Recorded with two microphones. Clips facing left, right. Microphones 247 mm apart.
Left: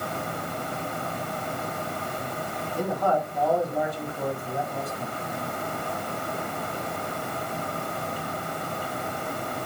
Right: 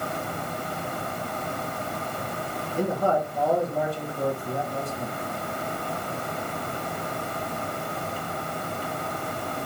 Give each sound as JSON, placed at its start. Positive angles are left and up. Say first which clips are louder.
{"t": 2.8, "sound": "a man speaking", "louder": "right 2 dB", "side_deg": -35, "distance_m": 4.0}